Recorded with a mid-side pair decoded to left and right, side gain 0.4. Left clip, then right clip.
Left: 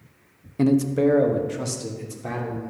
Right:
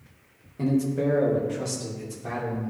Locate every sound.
0.6 s a man speaking: 65° left, 0.7 m; by 2.7 s 45° left, 3 m